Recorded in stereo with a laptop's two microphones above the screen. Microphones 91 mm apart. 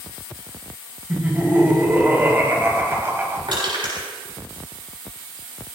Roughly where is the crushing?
Right.